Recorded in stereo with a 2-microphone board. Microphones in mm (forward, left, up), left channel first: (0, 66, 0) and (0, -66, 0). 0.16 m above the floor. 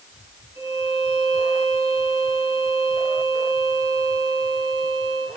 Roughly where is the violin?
Centre.